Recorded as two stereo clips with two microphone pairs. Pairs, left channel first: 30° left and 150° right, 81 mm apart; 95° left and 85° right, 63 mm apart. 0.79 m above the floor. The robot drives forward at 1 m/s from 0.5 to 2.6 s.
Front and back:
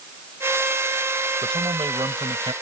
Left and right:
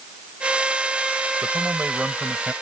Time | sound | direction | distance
1.4 | a man speaking | 140° right | ?